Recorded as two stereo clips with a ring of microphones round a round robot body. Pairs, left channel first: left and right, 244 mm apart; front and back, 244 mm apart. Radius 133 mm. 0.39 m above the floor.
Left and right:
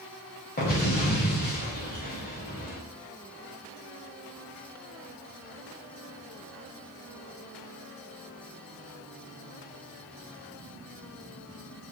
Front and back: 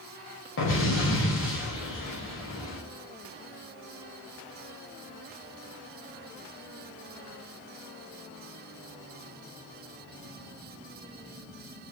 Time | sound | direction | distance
0.6 | an explosion | 35° left | 8 m